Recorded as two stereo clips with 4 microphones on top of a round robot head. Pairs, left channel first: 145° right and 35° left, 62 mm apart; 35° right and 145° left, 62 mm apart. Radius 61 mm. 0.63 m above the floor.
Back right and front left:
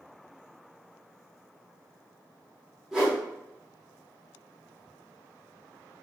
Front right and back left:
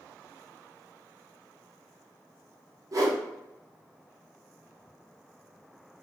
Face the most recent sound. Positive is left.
turn(degrees=115)